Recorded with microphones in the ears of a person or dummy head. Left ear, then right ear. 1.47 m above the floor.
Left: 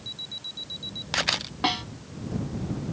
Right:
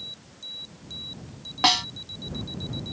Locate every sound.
1.6 s a snare drum: 35° right (ahead or behind)